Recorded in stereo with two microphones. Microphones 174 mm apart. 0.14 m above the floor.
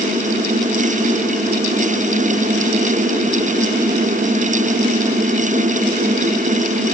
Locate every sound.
Only background noise.